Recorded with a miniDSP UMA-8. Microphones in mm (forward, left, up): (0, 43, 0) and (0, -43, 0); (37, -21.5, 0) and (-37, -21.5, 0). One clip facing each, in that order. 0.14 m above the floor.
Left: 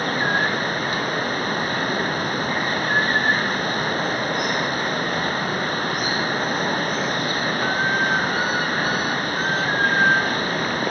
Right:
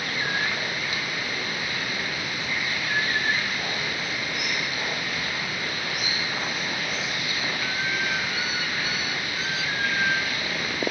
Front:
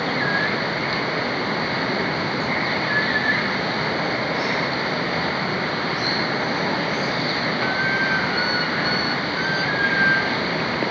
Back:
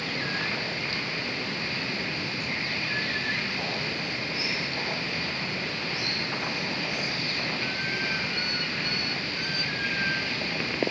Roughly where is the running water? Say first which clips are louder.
Left 7 dB, front 10 dB; ahead left.